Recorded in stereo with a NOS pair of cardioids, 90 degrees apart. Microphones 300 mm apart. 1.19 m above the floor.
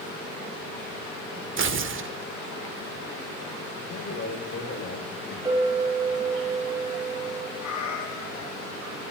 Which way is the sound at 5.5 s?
10° right.